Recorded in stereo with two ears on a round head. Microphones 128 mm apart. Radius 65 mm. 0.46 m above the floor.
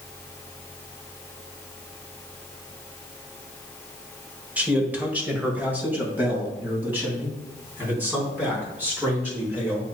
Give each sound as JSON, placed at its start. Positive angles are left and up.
{"t": 4.6, "sound": "a man speaking", "side_deg": -10, "distance_m": 1.3}